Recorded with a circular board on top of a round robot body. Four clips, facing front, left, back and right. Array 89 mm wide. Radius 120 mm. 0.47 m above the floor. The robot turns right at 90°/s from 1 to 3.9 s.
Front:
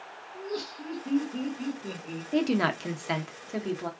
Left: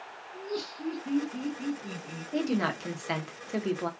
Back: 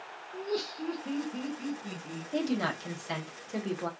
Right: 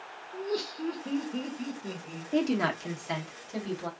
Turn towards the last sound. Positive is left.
turn(degrees=110)